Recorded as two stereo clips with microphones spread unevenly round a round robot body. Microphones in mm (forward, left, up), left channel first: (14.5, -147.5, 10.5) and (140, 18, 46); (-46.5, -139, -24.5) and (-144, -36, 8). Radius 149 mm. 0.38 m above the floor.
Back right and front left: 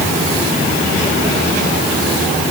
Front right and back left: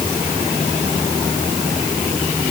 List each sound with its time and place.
Only background noise.